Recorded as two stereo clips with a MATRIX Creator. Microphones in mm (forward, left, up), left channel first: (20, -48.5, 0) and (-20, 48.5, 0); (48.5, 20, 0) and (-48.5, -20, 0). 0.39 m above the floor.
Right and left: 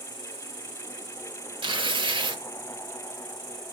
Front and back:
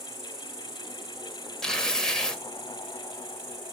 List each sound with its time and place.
0.0 s an insect: 150° right, 2.5 m
1.6 s tearing paper: 105° left, 0.8 m